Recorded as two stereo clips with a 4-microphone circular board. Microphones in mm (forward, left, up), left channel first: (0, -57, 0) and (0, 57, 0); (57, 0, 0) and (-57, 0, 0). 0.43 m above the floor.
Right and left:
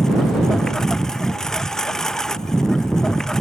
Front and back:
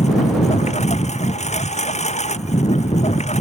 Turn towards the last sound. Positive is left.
turn(degrees=-5)